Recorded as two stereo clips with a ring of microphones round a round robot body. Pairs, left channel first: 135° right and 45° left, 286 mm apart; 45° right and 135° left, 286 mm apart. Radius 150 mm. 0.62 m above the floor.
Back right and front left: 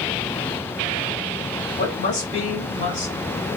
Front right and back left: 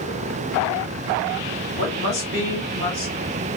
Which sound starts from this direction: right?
A woman speaking, at 1.8 s.